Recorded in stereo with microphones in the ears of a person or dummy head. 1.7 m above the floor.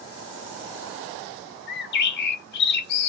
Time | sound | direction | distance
1.7 | a bird | 60° left (ahead or behind) | 0.5 m